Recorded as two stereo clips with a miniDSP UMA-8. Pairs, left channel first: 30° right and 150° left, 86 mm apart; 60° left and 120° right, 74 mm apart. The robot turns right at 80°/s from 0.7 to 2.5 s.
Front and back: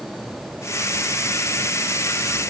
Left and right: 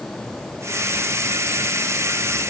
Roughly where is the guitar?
I don't hear a guitar.